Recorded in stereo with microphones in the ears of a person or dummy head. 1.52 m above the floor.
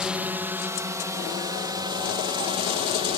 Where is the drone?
Centre (ahead or behind); by 3.2 s 20° right (ahead or behind).